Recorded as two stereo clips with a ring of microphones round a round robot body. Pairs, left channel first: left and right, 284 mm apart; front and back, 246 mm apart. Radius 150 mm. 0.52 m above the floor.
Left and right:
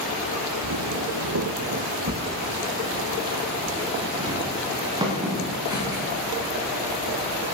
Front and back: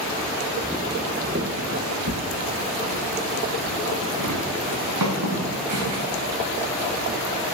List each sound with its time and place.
0.6 s footsteps: 90° right, 1.0 m; by 7.5 s 170° right, 6 m